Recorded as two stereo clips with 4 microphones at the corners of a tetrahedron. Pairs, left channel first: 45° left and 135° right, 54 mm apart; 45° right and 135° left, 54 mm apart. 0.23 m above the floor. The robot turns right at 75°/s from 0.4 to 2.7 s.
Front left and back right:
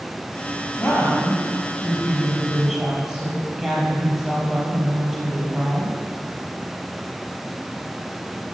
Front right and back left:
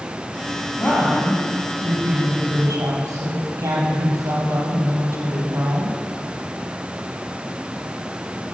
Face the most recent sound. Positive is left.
turn(degrees=150)